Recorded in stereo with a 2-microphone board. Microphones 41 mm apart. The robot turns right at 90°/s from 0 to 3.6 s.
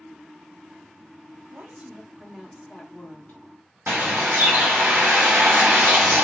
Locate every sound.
1.5 s a woman speaking: 80° right, 0.8 m; by 3.4 s 90° left, 0.8 m
3.9 s a bird: 60° right (ahead or behind), 0.8 m